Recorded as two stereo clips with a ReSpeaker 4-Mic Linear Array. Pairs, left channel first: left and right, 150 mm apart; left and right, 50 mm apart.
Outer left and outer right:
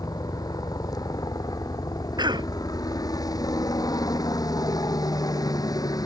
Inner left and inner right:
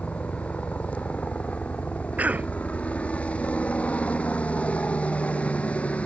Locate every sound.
0.0 s a helicopter: 25° left (ahead or behind)
2.2 s a cough: 30° right (ahead or behind)